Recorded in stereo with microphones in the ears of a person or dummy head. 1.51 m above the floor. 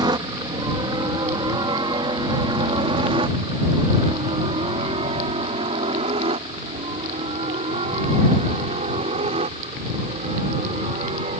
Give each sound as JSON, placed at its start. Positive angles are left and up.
{"t": 0.0, "sound": "a helicopter", "side_deg": -25}